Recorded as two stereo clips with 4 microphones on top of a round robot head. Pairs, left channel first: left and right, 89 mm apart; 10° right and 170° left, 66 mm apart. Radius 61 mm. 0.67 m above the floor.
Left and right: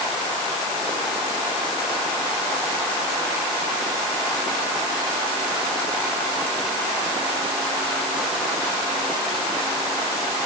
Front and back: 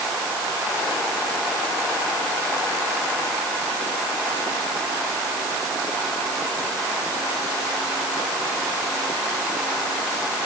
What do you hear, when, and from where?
Only background noise.